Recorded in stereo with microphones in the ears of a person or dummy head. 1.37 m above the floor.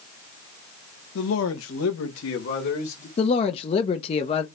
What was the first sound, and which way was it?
A man speaking, 80° left.